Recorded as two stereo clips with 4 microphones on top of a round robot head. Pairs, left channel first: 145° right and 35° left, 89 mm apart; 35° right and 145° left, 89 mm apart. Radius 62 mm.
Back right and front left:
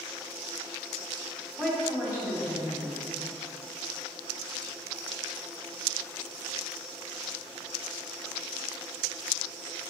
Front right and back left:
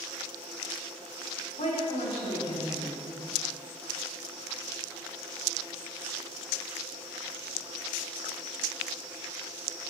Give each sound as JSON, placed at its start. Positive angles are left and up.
{"t": 1.6, "sound": "a woman speaking", "azimuth_deg": -45, "distance_m": 3.5}